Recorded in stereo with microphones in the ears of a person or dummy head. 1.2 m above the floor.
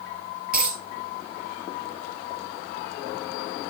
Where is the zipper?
I don't hear a zipper.